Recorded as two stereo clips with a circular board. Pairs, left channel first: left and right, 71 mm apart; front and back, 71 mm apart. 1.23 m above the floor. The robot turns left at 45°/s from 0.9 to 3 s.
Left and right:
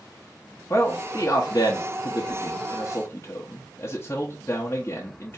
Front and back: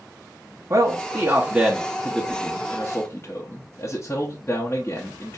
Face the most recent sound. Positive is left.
turn(degrees=45)